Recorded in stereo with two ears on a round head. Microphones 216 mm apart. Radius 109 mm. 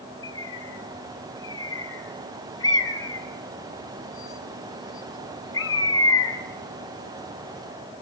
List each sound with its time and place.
0.2 s a bird: 15° left (ahead or behind), 5 m